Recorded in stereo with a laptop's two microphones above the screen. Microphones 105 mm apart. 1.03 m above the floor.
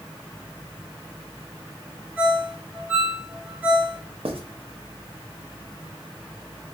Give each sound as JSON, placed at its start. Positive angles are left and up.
{"t": 2.2, "sound": "a ringtone", "side_deg": -10, "distance_m": 1.5}
{"t": 4.2, "sound": "writing", "side_deg": -70, "distance_m": 0.7}